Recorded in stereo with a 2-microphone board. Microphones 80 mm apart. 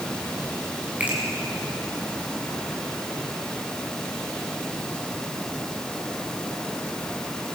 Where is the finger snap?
15° right (ahead or behind), 6 m.